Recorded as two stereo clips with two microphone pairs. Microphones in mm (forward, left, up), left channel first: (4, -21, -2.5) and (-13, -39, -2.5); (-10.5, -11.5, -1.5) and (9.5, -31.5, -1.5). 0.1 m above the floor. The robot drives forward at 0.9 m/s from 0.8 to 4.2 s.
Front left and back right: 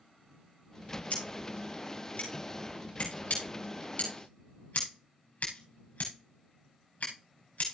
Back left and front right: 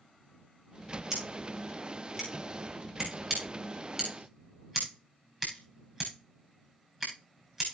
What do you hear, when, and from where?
1.1 s scissors: 30° left, 7.5 m; by 7.7 s 45° left, 5 m